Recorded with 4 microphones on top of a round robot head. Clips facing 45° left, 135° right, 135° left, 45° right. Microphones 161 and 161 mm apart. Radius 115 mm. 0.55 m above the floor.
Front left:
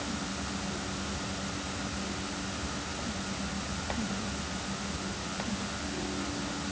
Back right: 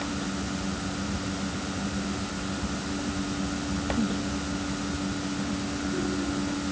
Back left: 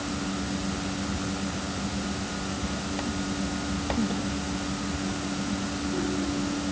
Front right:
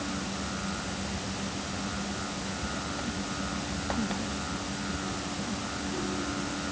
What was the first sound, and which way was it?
Only background noise.